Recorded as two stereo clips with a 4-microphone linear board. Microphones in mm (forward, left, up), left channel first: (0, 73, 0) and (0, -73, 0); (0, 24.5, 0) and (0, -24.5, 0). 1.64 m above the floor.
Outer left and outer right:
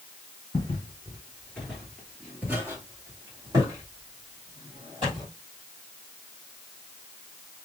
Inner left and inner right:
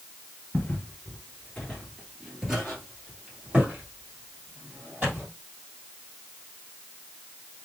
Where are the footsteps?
30° left (ahead or behind), 1.9 m; by 5.3 s 40° right (ahead or behind), 4 m.